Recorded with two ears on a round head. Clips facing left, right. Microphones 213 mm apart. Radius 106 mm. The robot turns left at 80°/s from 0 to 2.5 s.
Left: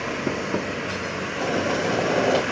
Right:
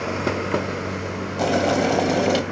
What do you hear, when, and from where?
1.4 s boiling: 70° right, 3 m; by 2.4 s 150° right, 3 m